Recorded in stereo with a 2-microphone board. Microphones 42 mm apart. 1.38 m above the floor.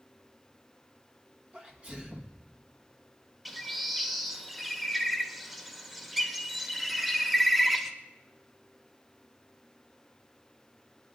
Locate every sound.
1.5 s a sneeze: 35° right (ahead or behind), 1.5 m
3.5 s a bird: 5° right (ahead or behind), 1.6 m